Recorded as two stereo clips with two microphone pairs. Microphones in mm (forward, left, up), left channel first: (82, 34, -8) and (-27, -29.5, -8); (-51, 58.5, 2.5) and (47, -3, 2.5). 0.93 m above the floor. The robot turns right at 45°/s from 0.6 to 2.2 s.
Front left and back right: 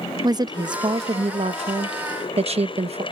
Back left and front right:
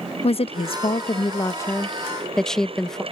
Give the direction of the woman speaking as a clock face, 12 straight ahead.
7 o'clock.